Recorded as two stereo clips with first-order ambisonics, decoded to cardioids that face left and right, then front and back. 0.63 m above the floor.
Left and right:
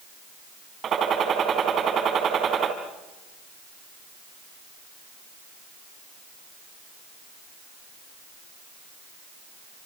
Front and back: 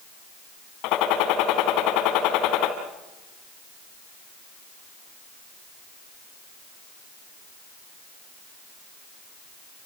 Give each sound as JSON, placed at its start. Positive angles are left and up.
{"t": 0.8, "sound": "a gunshot", "azimuth_deg": -30, "distance_m": 4.0}